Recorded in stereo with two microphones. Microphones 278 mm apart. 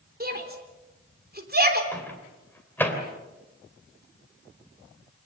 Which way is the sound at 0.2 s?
35° right (ahead or behind).